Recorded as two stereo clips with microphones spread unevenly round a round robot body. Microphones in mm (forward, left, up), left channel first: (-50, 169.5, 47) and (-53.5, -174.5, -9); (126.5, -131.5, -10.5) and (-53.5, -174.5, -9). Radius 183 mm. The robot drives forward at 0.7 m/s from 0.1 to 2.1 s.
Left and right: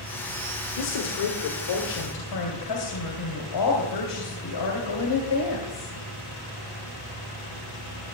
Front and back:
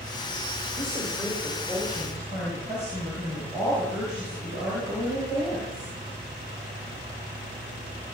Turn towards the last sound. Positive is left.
turn(degrees=120)